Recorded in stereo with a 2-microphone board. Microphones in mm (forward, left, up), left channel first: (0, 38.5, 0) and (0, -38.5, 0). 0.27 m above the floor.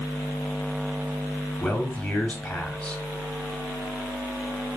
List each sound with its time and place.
1.6 s a man speaking: 15° left (ahead or behind), 1.4 m